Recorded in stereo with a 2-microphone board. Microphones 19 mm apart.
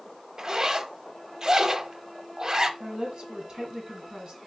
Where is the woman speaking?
50° right (ahead or behind), 2 m.